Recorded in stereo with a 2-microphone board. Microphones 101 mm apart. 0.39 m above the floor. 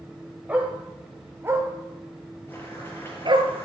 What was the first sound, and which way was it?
A dog barking, 15° right (ahead or behind).